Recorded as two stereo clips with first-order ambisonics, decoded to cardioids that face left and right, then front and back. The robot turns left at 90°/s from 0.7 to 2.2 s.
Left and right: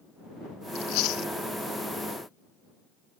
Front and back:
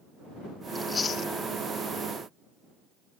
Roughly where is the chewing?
Left.